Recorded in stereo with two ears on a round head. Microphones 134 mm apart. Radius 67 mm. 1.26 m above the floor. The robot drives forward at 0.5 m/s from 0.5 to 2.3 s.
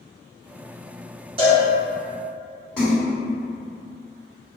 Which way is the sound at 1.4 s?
35° right (ahead or behind).